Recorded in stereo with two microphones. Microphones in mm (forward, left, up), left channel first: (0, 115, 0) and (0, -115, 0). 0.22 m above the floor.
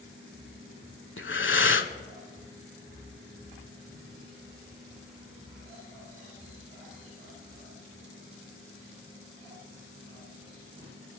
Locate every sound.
1.2 s breathing: 60° left (ahead or behind), 0.5 m